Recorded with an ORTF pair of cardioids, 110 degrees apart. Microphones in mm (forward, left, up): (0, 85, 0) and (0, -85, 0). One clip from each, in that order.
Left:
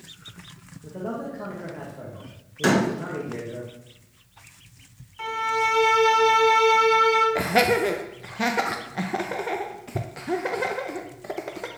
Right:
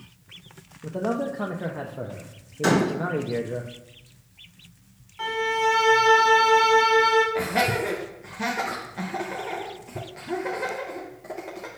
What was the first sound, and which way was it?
A man speaking, 35° right.